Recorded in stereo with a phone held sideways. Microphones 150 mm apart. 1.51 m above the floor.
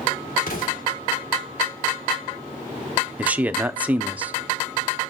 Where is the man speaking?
10° right (ahead or behind), 0.7 m.